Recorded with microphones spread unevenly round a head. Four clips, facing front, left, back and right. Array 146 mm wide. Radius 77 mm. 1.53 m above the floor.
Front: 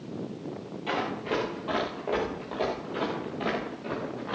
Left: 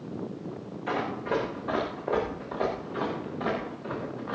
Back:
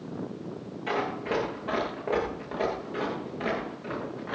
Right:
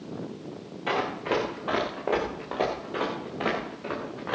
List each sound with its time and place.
0.9 s running footsteps: 105° right, 9 m; by 4.4 s 90° right, 9 m